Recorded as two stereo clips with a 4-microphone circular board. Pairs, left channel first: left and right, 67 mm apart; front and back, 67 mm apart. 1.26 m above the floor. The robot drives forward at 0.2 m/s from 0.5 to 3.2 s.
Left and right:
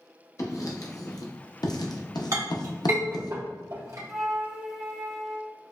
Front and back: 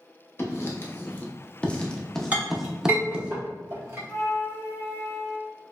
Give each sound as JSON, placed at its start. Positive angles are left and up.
{"t": 0.4, "sound": "writing", "azimuth_deg": 50, "distance_m": 0.7}
{"t": 2.3, "sound": "a clink", "azimuth_deg": -115, "distance_m": 1.1}
{"t": 4.1, "sound": "a flute", "azimuth_deg": 5, "distance_m": 0.6}